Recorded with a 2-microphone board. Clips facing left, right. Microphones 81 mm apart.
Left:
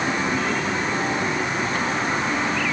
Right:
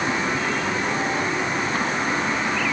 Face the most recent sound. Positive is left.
No sound to turn to.